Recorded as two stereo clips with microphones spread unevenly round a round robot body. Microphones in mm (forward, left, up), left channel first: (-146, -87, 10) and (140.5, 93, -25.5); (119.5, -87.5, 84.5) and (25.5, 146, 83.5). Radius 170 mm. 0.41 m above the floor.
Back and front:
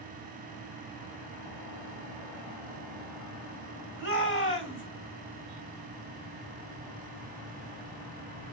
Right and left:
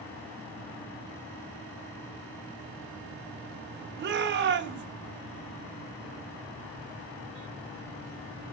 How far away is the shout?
About 2.5 m.